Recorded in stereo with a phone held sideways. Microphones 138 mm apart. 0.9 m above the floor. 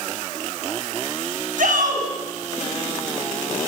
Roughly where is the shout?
Right.